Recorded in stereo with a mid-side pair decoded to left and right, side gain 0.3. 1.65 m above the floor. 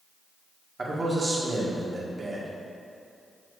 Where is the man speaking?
45° right, 1.9 m.